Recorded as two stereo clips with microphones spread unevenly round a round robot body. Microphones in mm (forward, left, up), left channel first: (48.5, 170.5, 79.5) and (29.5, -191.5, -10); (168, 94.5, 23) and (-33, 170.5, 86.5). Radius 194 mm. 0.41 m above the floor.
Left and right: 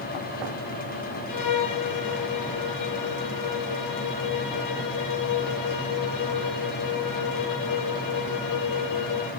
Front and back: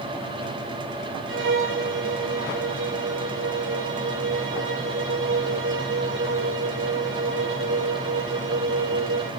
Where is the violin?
130° left, 2 m.